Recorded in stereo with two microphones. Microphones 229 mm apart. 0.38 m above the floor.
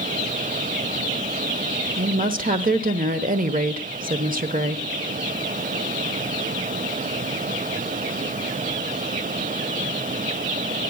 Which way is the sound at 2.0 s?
35° right (ahead or behind).